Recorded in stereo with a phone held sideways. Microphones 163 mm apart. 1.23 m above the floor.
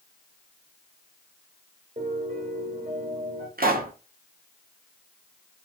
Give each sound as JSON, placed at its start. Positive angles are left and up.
{"t": 2.0, "sound": "a piano", "side_deg": -55, "distance_m": 1.5}
{"t": 3.6, "sound": "a pop", "side_deg": -65, "distance_m": 0.5}